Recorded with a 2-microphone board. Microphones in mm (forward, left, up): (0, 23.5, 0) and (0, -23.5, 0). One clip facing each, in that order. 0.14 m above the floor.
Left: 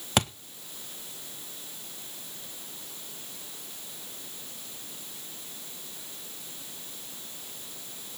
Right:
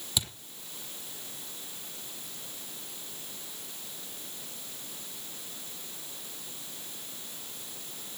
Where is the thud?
55° left (ahead or behind), 1.1 m.